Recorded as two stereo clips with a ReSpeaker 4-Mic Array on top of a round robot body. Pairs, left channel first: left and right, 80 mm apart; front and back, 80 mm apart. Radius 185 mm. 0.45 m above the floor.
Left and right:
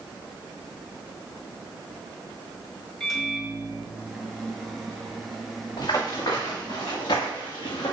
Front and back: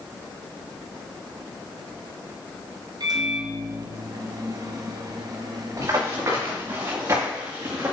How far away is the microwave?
About 1.7 m.